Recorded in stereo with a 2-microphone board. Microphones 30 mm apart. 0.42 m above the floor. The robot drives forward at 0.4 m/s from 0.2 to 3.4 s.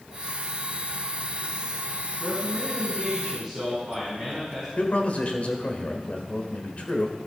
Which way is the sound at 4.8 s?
45° left (ahead or behind).